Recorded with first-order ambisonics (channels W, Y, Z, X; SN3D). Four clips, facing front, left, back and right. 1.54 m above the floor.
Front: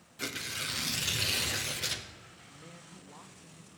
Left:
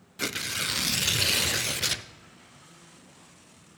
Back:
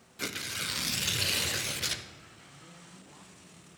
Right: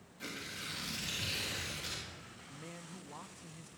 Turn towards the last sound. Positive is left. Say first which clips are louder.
# right 3 dB, front 1 dB
turn(degrees=-75)